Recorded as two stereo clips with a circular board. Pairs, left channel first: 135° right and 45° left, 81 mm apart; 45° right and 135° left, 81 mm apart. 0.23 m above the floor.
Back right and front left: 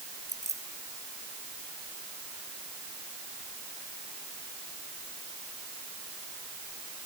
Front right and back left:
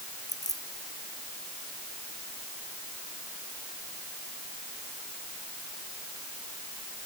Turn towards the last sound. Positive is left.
turn(degrees=-5)